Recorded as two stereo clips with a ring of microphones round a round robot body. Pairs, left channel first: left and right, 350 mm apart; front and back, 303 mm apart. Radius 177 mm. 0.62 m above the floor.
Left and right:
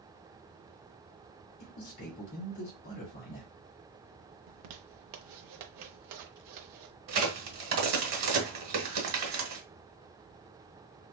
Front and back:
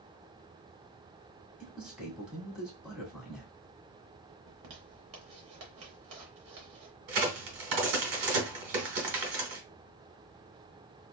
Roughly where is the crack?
Behind right.